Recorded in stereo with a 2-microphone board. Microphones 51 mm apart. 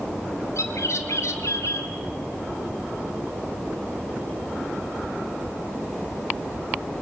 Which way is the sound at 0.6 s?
70° left (ahead or behind).